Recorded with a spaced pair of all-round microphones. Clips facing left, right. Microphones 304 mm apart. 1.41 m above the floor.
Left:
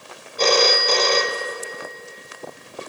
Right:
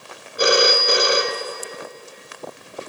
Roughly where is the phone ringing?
Centre.